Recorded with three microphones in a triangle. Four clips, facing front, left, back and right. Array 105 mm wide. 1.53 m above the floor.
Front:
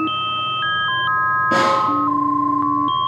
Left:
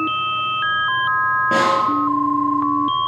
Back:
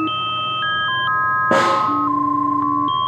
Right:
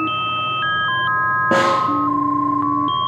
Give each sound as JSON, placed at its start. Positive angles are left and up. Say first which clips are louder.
{"t": 1.5, "sound": "a snare drum", "louder": "right 1 dB, back 1 dB", "azimuth_deg": -150, "distance_m": 1.8}